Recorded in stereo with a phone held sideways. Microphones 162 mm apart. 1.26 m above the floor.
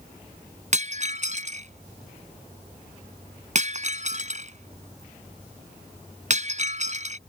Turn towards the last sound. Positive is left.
turn(degrees=-50)  # may be behind; listen again after turning